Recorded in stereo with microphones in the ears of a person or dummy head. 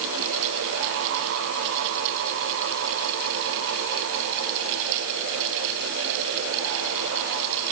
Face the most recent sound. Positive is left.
No sound to turn to.